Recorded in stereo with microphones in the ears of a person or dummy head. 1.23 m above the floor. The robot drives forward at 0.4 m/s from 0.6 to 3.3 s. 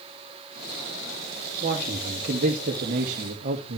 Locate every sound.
1.6 s a man speaking: 35° right (ahead or behind), 2.5 m; by 3.8 s 45° right (ahead or behind), 2 m